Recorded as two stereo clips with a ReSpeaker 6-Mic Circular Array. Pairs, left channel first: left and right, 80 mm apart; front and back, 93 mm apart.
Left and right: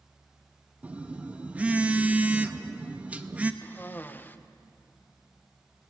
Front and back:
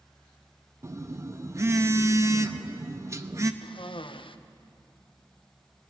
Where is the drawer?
No drawer in this recording.